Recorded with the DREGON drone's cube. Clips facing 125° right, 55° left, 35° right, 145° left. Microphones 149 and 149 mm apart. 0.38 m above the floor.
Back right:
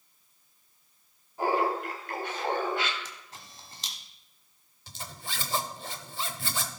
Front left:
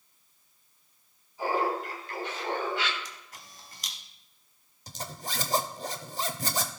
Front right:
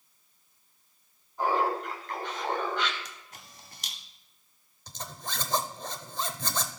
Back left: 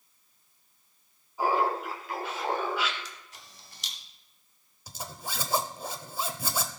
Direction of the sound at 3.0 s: 65° right.